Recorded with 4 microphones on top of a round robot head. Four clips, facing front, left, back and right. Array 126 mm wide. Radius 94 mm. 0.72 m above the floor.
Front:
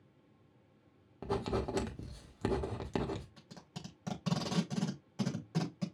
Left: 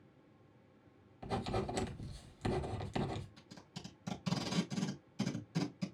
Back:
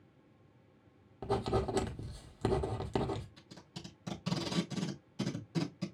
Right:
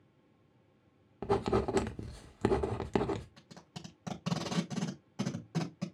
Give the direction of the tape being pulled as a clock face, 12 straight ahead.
2 o'clock.